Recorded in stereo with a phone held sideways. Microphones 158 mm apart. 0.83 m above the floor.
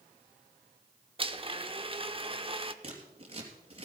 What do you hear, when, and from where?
1.2 s a blender: 35° right (ahead or behind), 0.8 m
2.8 s scissors: 35° right (ahead or behind), 3 m